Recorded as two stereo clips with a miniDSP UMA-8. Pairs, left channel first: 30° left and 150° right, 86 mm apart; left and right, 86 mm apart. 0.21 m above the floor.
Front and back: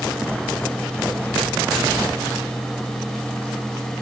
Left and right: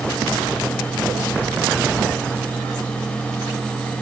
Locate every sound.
Only background noise.